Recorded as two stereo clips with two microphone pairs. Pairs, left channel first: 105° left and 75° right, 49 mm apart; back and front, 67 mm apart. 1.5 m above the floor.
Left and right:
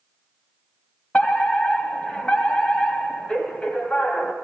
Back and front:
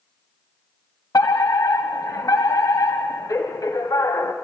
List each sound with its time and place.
1.1 s a fire alarm: 170° left, 1.7 m